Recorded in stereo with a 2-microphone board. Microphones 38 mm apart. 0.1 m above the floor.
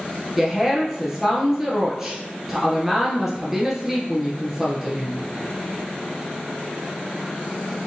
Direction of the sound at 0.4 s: 10° right (ahead or behind).